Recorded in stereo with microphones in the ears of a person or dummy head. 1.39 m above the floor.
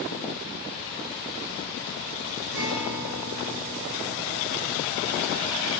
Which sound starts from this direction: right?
A guitar, at 2.5 s.